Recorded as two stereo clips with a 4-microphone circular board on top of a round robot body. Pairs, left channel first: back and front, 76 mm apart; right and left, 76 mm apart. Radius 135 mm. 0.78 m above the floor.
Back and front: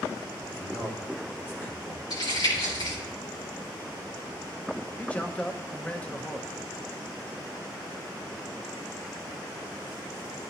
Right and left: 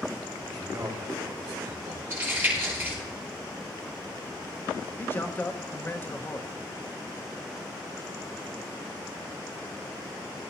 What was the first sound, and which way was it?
A man speaking, 120° left.